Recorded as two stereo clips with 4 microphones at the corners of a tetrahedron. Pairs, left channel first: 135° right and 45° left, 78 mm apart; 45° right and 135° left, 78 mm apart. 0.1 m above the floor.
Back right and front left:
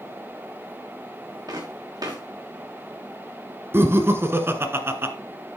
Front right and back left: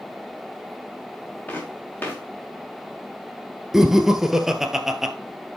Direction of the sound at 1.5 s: 25° left.